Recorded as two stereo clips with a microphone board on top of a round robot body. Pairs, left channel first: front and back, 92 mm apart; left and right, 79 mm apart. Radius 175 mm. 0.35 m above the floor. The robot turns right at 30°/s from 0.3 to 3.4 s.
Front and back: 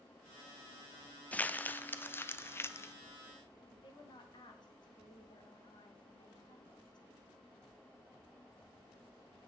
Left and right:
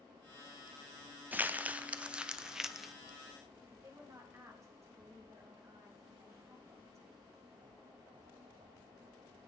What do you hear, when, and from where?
1.3 s crumpling: 55° right, 1.1 m; by 2.9 s 5° right, 1.1 m
3.7 s a woman speaking: 35° right, 3 m